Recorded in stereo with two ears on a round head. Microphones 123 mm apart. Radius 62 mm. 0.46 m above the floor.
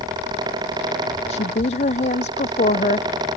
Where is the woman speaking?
45° left (ahead or behind); by 3.1 s 50° left (ahead or behind).